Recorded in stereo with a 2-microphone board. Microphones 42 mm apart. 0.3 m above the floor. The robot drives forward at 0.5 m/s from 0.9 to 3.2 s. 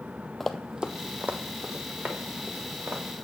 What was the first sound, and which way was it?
Running footsteps, 10° left (ahead or behind).